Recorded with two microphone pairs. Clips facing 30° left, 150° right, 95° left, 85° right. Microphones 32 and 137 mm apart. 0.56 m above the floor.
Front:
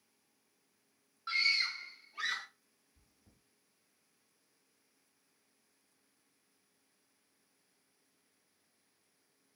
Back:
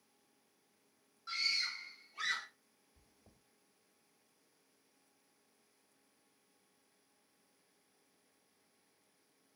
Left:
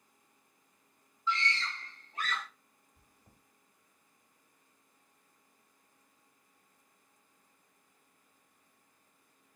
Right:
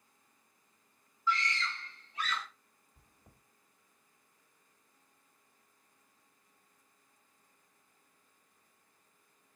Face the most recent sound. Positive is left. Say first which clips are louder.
# back 2 dB, right 2 dB
turn(degrees=-145)